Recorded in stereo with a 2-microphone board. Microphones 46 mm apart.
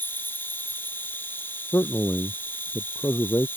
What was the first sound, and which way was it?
An insect, 45° left (ahead or behind).